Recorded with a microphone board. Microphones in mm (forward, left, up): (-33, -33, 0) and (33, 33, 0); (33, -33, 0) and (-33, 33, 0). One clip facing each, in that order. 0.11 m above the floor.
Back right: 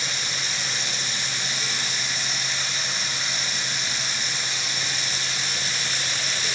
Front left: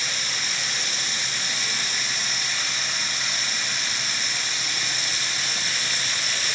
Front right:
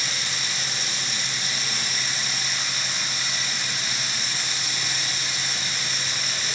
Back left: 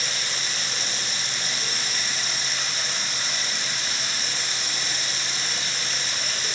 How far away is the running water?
About 1.5 m.